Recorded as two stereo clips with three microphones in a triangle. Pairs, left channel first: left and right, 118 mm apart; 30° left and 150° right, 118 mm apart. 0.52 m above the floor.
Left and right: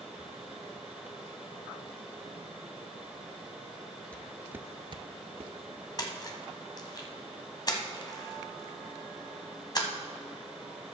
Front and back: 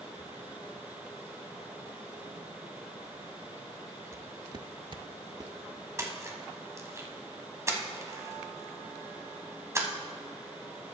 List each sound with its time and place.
4.1 s footsteps: 165° left, 0.6 m; by 5.5 s 100° right, 0.9 m
6.0 s a splash: 145° left, 1.3 m